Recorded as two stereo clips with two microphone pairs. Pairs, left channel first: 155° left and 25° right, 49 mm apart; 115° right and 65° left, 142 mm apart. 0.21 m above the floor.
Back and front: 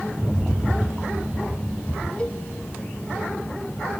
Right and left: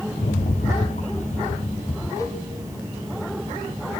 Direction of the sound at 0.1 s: 85° right.